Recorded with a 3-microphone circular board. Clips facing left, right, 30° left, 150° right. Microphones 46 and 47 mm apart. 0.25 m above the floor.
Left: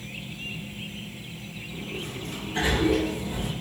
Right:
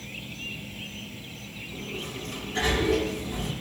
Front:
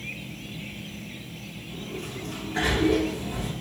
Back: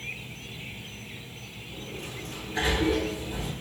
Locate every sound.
0.0 s an insect: 15° left, 2 m
1.7 s a sliding door: 15° left, 8.5 m